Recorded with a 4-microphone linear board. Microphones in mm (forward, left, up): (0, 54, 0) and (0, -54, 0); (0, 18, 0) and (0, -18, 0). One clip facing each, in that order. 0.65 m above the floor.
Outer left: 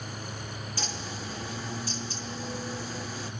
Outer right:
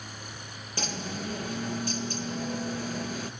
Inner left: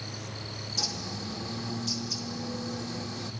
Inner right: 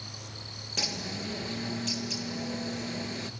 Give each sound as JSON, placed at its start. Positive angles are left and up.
{"t": 0.8, "sound": "a bird", "side_deg": -60, "distance_m": 1.8}